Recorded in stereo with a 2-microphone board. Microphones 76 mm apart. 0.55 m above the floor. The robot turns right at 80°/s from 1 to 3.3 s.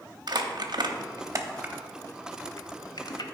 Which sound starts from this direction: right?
Crumpling, at 0.3 s.